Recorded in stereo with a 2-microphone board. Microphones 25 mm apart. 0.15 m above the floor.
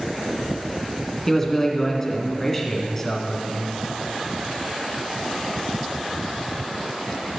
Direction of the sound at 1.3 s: 15° left (ahead or behind).